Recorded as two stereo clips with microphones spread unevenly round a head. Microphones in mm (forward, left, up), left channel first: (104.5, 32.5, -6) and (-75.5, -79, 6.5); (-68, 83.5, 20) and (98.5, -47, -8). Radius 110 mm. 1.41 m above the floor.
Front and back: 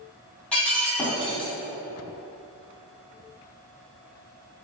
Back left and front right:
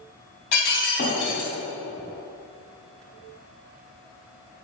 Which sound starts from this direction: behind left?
Breaking glass, at 0.5 s.